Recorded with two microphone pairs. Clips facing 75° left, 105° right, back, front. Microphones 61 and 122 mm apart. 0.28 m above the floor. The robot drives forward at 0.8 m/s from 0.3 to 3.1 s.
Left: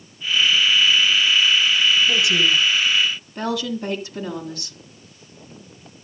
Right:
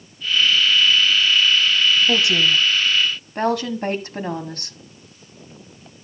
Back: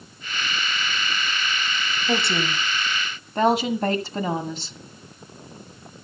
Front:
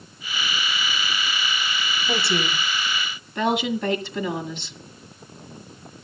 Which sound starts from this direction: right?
A woman speaking, at 2.1 s.